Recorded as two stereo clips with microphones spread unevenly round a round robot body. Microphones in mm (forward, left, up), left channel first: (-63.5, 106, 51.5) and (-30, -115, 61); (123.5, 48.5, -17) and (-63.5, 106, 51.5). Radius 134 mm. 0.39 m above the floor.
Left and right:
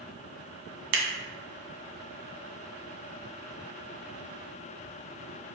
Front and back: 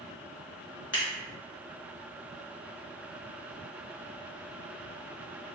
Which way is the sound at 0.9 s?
105° right.